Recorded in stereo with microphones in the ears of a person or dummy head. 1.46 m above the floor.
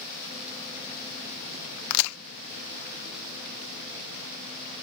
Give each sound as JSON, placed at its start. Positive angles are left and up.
{"t": 1.9, "sound": "a crack", "side_deg": 80}